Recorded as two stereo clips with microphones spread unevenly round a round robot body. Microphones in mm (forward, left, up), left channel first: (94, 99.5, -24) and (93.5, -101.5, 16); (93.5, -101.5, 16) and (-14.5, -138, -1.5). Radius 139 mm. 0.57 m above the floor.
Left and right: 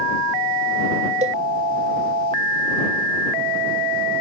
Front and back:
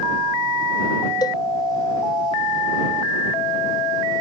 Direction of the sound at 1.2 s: 35° right.